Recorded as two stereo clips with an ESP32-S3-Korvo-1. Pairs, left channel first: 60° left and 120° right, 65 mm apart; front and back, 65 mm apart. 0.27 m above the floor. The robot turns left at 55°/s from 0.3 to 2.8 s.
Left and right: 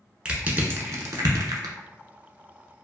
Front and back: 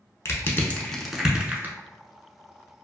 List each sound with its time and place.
0.2 s crushing: 45° right, 0.6 m; by 1.8 s 125° right, 0.6 m